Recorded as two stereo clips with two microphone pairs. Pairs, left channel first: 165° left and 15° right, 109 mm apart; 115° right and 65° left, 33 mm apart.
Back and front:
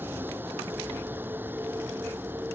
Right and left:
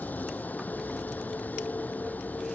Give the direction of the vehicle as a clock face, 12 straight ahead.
3 o'clock.